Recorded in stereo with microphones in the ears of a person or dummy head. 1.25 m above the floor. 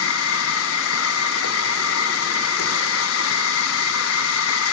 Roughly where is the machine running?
Left.